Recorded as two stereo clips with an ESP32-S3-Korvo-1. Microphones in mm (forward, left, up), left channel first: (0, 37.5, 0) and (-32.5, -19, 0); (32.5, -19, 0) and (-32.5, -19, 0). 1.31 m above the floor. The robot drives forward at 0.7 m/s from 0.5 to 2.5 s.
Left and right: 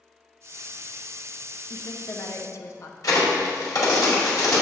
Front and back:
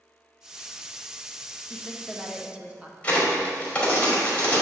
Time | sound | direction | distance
1.7 | a woman speaking | 70° left | 0.9 m
3.0 | a crack | 70° left | 1.9 m